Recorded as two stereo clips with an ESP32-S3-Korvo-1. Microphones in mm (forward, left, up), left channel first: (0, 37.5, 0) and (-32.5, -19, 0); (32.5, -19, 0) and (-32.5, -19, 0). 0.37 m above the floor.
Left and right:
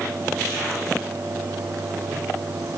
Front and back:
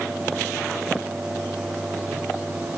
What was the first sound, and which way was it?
Only background noise.